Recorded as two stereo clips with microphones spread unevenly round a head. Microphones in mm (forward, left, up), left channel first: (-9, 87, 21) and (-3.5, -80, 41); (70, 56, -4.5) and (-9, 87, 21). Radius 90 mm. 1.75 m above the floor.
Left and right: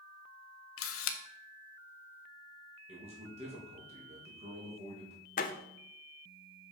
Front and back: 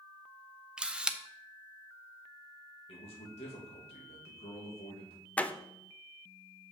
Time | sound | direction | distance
0.8 | a camera shutter | 85° left | 0.9 m
2.9 | a man speaking | 35° right | 2 m
5.4 | a door slam | 70° left | 0.6 m